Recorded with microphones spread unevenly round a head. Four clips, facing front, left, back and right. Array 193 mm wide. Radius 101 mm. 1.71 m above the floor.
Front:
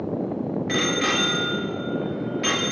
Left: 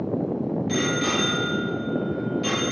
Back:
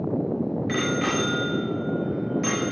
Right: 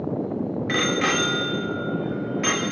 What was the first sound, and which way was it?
A bicycle bell, 90° right.